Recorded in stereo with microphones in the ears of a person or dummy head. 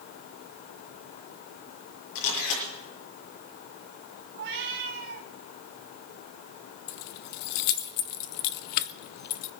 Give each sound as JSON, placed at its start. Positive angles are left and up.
{"t": 2.1, "sound": "a camera shutter", "side_deg": 65, "distance_m": 7.0}
{"t": 4.3, "sound": "a cat meowing", "side_deg": -60, "distance_m": 1.5}
{"t": 6.9, "sound": "keys jangling", "side_deg": 55, "distance_m": 0.6}